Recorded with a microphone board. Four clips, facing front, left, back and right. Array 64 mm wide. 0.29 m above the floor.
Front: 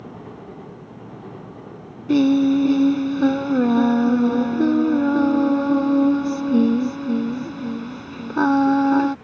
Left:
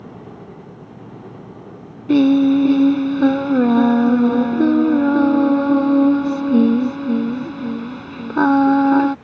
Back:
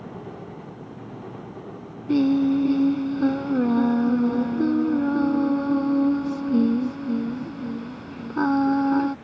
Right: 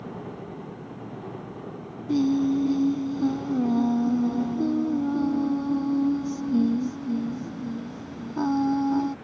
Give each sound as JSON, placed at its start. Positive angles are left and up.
{"t": 2.1, "sound": "singing", "azimuth_deg": 70}